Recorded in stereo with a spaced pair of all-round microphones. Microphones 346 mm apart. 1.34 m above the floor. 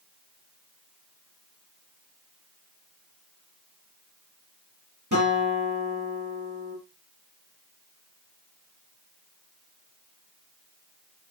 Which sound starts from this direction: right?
A guitar, at 5.1 s.